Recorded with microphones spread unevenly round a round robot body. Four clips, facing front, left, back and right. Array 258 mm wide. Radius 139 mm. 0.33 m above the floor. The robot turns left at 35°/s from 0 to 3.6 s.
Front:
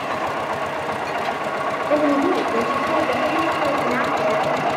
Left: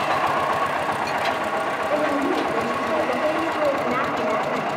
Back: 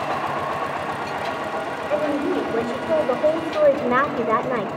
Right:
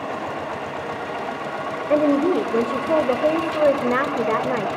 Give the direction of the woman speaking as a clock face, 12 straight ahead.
2 o'clock.